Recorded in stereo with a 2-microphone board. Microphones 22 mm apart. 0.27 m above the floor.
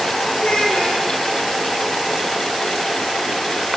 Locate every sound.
0.4 s a child speaking: 60° left (ahead or behind), 6 m